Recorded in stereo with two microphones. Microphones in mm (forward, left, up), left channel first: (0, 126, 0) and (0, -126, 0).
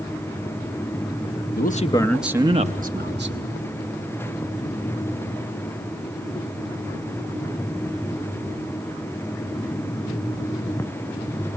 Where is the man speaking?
40° left (ahead or behind), 0.9 m; by 3.5 s 50° right (ahead or behind), 1.6 m.